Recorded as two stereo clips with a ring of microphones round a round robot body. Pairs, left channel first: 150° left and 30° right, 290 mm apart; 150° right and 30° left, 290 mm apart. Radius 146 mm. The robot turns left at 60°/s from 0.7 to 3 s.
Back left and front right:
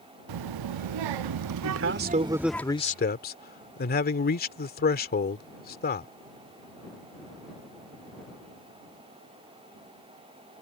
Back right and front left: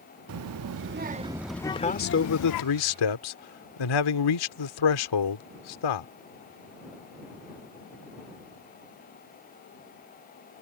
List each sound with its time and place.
0.3 s a child speaking: 10° right; by 2.6 s 130° right
1.6 s a man speaking: 65° right; by 6.1 s 150° right